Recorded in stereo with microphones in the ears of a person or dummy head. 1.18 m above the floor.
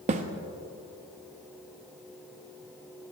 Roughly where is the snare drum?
Right.